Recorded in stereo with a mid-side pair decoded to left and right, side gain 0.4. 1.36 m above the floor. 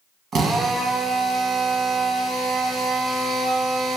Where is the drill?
65° right, 1.0 m.